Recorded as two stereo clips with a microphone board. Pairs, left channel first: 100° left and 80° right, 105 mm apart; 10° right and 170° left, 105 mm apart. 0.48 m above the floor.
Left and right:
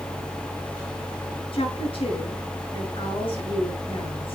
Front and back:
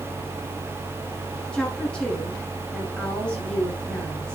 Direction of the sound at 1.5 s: 70° left.